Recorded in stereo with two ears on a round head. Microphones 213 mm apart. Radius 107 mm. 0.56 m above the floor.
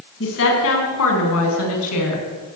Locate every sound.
0.2 s a woman speaking: 55° left (ahead or behind), 4.5 m; by 2.6 s 75° left (ahead or behind), 5 m